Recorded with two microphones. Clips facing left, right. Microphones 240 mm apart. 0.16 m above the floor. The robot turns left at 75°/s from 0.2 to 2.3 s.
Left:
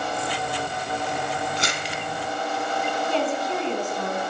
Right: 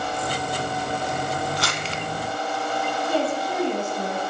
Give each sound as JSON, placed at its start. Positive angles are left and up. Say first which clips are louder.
{"t": 1.6, "sound": "crumpling", "louder": "right 1 dB", "side_deg": 20, "distance_m": 0.7}
{"t": 3.1, "sound": "a woman speaking", "louder": "right 1 dB", "side_deg": -10, "distance_m": 1.4}